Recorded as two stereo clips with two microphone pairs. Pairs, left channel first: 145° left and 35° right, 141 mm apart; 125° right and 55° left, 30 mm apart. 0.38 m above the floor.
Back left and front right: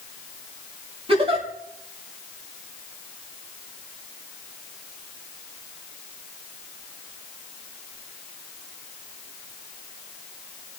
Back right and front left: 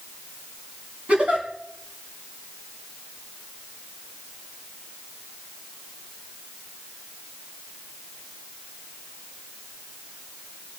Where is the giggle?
10° left, 3.5 m.